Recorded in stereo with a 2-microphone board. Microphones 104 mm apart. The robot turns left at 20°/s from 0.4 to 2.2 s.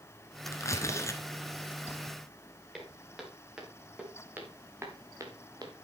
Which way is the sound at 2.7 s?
5° right (ahead or behind).